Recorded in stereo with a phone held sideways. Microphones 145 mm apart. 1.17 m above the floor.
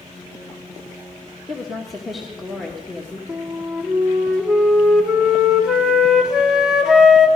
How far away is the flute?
About 1.3 m.